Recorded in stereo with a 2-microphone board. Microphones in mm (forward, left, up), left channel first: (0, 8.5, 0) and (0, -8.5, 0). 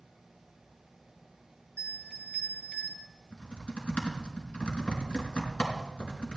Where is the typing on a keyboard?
75° left (ahead or behind), 4.5 m.